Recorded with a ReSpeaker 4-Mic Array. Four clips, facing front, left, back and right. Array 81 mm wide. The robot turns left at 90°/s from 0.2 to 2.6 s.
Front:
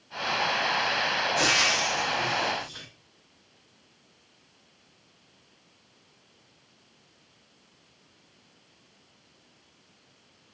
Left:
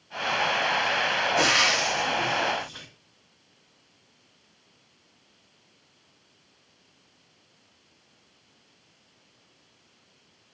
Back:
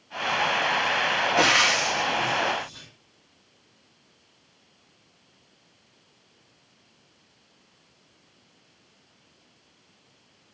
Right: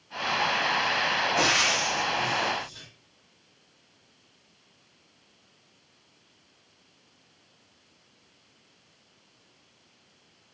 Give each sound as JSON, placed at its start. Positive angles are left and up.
{"t": 1.4, "sound": "frying", "azimuth_deg": 180, "distance_m": 0.6}